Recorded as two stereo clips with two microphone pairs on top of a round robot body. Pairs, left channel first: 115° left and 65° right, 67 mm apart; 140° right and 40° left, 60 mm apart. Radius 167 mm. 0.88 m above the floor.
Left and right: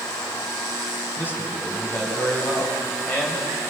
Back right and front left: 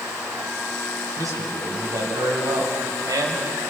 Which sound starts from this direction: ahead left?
A man speaking, at 1.2 s.